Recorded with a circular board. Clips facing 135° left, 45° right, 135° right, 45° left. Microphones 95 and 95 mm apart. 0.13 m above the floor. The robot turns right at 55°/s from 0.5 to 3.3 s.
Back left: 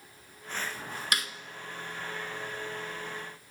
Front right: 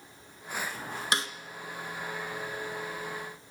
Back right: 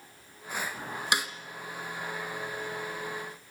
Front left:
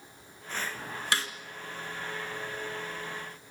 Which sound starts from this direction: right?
A snare drum, at 1.1 s.